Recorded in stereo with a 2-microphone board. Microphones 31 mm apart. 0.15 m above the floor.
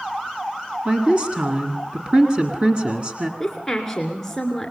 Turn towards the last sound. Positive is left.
turn(degrees=10)  # may be behind; listen again after turning